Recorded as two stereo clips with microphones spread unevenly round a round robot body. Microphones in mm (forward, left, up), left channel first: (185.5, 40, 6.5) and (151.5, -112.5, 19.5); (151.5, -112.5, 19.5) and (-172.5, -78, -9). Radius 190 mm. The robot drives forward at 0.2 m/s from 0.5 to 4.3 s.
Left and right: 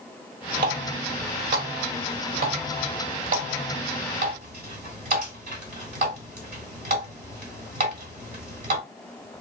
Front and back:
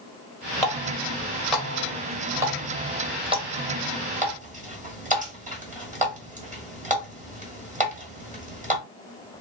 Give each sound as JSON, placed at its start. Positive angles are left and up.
{"t": 0.6, "sound": "a running tap", "azimuth_deg": -90, "distance_m": 1.3}